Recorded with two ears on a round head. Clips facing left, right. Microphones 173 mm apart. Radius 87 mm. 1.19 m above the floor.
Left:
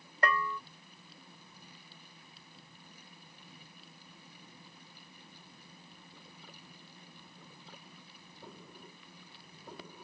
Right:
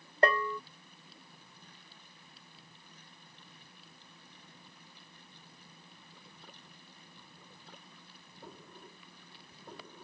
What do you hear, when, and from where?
0.2 s a bell: 25° right (ahead or behind)